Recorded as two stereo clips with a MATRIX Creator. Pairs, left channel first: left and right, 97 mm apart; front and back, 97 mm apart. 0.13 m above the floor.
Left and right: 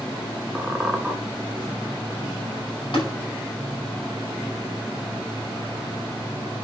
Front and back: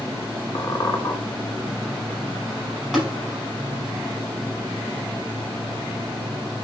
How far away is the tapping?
About 5.5 m.